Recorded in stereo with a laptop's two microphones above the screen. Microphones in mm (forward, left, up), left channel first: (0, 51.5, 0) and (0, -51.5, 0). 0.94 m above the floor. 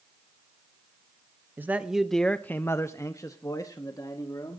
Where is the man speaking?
20° right (ahead or behind), 0.9 m; by 4.6 s 35° left (ahead or behind), 2.5 m.